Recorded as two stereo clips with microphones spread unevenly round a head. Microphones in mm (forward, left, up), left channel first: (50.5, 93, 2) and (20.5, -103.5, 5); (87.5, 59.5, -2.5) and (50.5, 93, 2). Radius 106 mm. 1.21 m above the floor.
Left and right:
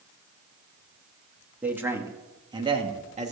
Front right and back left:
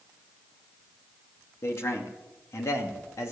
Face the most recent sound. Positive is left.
turn(degrees=-45)